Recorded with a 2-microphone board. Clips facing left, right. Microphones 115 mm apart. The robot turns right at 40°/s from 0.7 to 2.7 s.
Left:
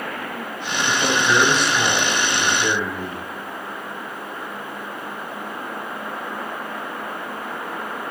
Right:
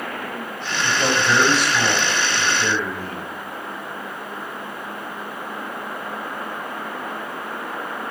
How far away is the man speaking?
About 2.0 m.